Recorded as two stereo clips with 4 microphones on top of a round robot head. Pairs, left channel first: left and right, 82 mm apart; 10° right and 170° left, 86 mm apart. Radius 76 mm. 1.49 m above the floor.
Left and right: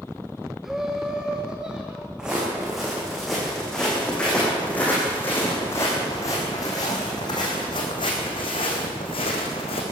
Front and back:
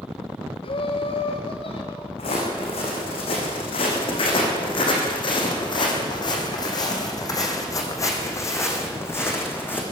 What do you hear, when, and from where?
0.6 s laughter: 5° right, 1.0 m; by 2.1 s 10° right, 2 m
2.2 s footsteps: 5° right, 5 m; by 9.8 s 60° left, 4.5 m